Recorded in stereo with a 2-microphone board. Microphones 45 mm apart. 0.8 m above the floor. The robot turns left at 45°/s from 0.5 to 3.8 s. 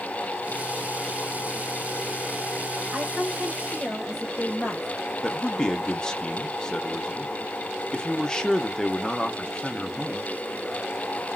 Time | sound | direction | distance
2.9 | a woman speaking | 135° right | 1.3 m
5.2 | a man speaking | 15° left (ahead or behind) | 0.7 m